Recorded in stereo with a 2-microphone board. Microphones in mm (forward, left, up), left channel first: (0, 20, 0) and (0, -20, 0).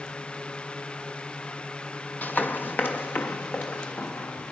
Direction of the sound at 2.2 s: 50° left (ahead or behind).